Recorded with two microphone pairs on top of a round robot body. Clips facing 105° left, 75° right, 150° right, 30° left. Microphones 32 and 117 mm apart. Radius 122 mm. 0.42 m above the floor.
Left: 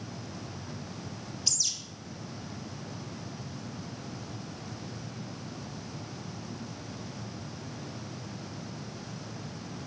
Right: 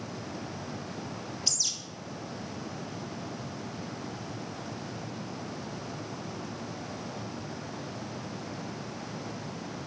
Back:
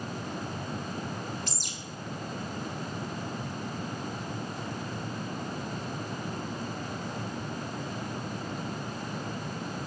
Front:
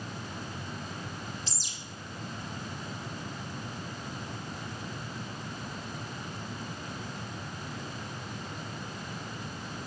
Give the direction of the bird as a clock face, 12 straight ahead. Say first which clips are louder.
Even, back 4 dB; 6 o'clock.